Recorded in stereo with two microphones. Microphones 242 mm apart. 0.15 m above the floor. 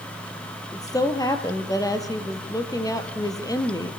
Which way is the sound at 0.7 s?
15° left (ahead or behind).